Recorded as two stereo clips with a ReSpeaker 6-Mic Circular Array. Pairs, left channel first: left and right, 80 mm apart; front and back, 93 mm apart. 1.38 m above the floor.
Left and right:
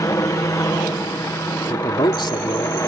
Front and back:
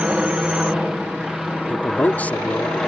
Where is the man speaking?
75° left.